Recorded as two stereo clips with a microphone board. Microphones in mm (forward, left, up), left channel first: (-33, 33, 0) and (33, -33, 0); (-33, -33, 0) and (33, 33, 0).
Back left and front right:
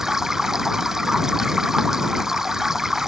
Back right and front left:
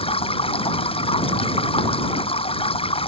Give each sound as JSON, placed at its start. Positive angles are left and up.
{"t": 0.0, "sound": "running water", "azimuth_deg": -130}